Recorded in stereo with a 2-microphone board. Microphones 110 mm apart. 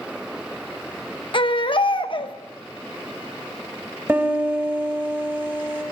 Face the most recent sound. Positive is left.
turn(degrees=-20)  # may be behind; listen again after turning